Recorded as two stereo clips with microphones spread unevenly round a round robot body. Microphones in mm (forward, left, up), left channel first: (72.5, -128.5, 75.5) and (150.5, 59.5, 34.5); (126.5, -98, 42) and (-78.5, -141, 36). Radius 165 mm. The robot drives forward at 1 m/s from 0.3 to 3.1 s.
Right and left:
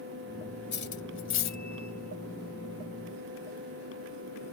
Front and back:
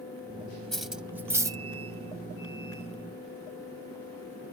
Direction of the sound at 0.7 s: 75° right.